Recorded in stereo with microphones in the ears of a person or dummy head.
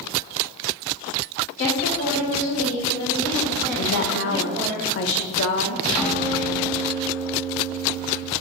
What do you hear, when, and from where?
1.6 s a woman speaking: 45° left (ahead or behind), 1.8 m; by 4.8 s 25° right (ahead or behind), 1.2 m
3.8 s a woman speaking: 65° left (ahead or behind), 0.5 m
6.0 s a guitar: 5° left (ahead or behind), 0.7 m